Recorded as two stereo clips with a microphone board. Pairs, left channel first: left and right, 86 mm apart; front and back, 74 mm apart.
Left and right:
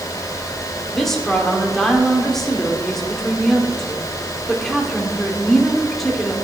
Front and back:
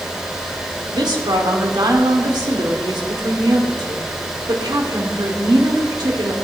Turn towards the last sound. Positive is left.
turn(degrees=175)